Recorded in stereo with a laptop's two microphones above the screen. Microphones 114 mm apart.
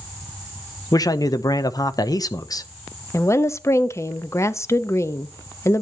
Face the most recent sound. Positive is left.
turn(degrees=25)  # may be behind; listen again after turning